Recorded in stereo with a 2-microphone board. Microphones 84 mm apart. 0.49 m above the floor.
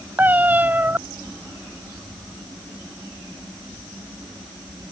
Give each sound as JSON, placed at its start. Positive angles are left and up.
{"t": 0.2, "sound": "a cat meowing", "side_deg": -20}